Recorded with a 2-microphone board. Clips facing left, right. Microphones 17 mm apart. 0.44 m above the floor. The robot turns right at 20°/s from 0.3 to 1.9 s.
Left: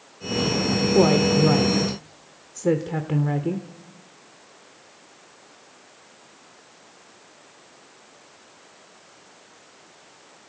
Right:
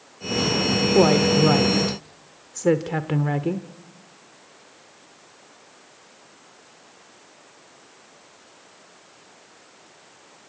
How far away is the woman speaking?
About 1.1 m.